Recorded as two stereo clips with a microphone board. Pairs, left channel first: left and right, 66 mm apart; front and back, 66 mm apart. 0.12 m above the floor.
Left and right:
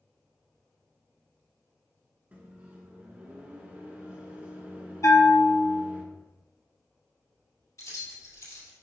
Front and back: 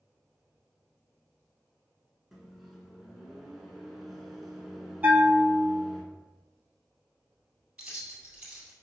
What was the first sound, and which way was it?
A microwave, 90° right.